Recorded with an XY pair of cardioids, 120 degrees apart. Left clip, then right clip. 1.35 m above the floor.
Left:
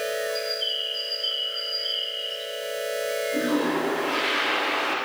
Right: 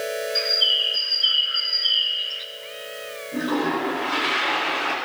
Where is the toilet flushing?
30° right, 5 m.